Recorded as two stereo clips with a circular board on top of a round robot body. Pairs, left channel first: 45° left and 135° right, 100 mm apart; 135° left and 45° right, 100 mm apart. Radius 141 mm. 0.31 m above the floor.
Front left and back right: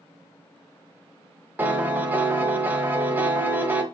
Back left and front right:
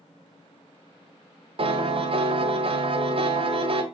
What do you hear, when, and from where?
1.6 s a piano: 65° right, 2 m